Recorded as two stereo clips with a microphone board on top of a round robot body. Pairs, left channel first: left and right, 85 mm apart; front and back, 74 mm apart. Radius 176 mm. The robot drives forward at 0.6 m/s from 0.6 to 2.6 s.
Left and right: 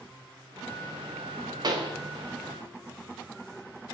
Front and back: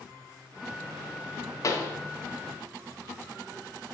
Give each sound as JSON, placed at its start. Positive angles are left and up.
{"t": 1.6, "sound": "a pop", "azimuth_deg": -45, "distance_m": 0.7}